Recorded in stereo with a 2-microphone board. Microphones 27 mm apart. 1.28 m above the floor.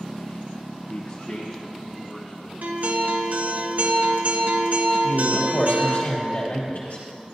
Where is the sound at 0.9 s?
55° left (ahead or behind), 0.9 m; by 2.5 s 40° left (ahead or behind), 1.9 m.